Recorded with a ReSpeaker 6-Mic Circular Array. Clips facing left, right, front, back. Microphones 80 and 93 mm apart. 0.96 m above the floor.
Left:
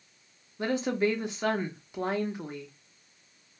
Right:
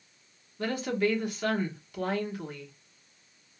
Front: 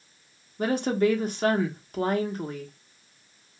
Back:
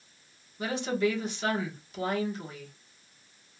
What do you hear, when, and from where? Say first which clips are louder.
0.6 s a woman speaking: left 1 dB, front 5 dB; 25° left, 1.0 m